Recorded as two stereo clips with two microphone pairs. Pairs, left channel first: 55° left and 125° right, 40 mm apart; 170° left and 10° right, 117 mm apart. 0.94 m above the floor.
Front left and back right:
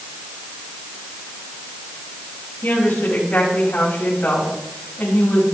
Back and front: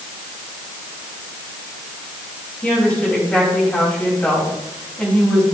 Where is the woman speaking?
95° left, 5.5 m.